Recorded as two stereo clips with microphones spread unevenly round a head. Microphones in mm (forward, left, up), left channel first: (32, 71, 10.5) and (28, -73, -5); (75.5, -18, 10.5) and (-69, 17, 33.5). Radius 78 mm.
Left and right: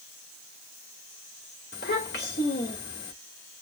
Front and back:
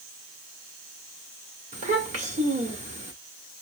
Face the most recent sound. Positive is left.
turn(degrees=120)